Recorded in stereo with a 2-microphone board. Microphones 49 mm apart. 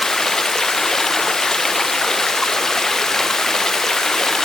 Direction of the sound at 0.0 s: 10° left (ahead or behind).